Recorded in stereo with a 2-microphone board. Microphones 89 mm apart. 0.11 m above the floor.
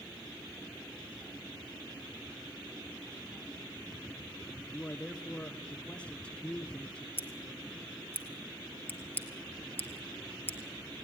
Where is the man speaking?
10° left (ahead or behind), 1.3 m.